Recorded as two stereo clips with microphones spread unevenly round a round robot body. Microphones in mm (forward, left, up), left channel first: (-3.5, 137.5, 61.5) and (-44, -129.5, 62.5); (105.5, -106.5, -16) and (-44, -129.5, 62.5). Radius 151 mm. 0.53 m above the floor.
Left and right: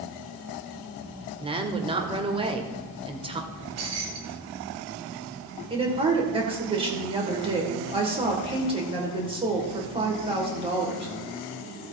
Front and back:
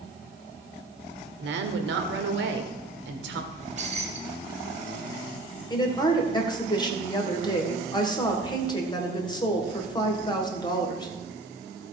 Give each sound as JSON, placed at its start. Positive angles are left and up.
{"t": 1.4, "sound": "a woman speaking", "azimuth_deg": -170, "distance_m": 1.6}
{"t": 3.5, "sound": "keys jangling", "azimuth_deg": -120, "distance_m": 2.0}
{"t": 5.7, "sound": "a woman speaking", "azimuth_deg": -30, "distance_m": 2.5}